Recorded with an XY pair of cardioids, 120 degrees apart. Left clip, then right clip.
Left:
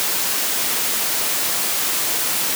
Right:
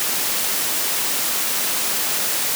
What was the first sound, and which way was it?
Only background noise.